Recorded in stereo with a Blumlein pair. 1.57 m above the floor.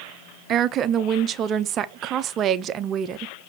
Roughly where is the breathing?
I don't hear breathing.